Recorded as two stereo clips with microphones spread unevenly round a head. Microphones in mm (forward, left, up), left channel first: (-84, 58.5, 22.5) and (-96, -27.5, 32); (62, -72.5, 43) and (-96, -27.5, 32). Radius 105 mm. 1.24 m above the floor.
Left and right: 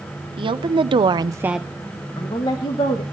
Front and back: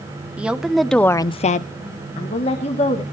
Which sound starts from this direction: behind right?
A woman speaking, at 0.4 s.